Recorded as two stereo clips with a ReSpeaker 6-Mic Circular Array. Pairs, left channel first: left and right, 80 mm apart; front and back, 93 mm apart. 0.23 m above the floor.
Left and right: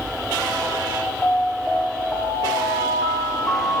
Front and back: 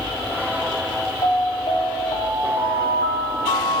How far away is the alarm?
About 6 m.